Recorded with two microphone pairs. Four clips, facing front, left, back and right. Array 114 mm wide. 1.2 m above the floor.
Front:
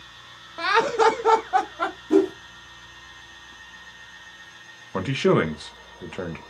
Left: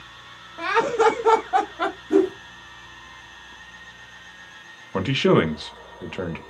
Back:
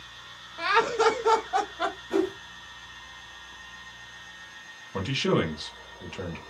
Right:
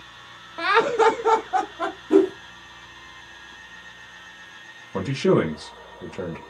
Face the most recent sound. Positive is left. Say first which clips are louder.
# left 1 dB, front 5 dB
turn(degrees=45)